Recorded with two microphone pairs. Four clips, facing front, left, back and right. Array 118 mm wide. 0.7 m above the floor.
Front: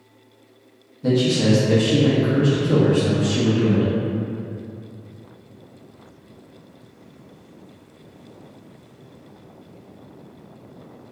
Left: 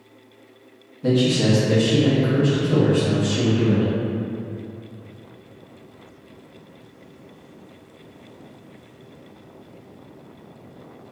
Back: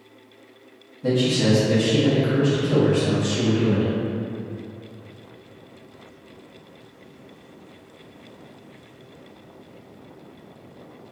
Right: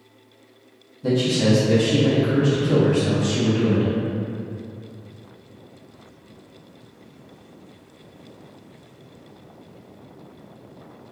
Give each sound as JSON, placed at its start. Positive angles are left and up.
{"t": 1.0, "sound": "a man speaking", "azimuth_deg": 85, "distance_m": 0.8}